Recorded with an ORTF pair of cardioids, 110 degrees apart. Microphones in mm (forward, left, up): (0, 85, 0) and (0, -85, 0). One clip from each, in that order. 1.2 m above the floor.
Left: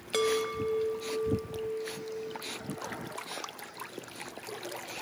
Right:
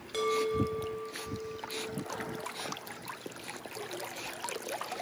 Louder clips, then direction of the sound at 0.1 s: Left 1 dB; 45° left.